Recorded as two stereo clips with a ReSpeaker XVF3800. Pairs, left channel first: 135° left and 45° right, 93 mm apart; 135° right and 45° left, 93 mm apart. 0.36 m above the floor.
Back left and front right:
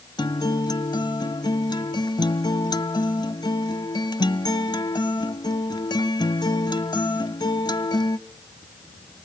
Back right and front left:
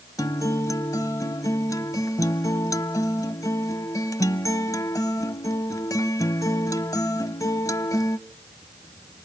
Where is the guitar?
175° left, 0.7 m.